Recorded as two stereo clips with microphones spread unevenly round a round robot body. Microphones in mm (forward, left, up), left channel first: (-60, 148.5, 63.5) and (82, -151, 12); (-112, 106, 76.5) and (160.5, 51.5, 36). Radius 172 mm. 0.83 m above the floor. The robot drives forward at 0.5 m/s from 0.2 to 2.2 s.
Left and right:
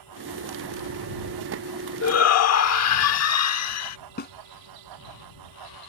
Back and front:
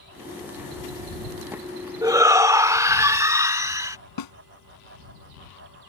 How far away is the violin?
I don't hear a violin.